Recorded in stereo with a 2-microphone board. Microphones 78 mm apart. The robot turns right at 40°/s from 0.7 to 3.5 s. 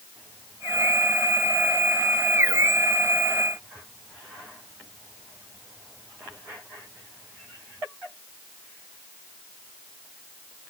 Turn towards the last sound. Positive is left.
No sound to turn to.